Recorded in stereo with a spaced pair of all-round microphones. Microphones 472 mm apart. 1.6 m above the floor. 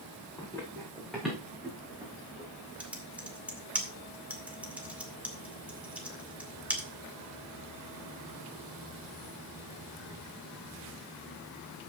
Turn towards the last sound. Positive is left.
turn(degrees=-5)  # may be behind; listen again after turning